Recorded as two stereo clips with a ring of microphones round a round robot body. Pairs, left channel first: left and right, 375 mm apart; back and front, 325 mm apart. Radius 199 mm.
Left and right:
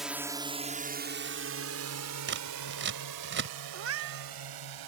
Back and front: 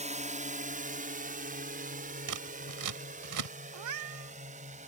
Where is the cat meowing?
35° right.